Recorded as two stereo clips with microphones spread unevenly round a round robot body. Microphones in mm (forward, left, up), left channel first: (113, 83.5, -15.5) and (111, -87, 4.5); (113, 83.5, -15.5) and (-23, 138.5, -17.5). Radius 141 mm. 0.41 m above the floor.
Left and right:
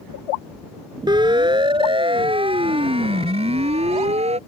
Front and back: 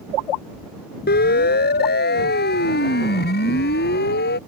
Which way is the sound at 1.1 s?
25° right.